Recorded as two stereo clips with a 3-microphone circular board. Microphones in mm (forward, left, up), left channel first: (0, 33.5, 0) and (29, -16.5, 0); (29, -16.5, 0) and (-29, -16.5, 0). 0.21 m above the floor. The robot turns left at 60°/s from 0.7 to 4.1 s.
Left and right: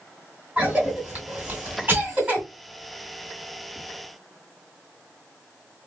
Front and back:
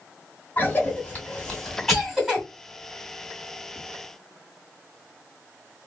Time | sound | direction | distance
0.6 | a cough | 10° right | 1.6 m